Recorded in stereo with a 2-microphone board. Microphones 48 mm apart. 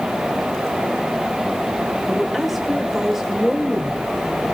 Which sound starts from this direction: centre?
A woman speaking, at 2.1 s.